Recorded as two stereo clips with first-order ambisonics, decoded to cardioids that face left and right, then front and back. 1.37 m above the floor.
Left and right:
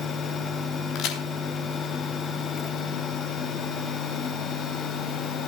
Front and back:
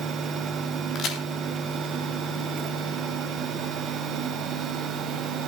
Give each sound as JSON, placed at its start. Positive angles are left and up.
{"t": 0.9, "sound": "a crack", "azimuth_deg": 50, "distance_m": 3.0}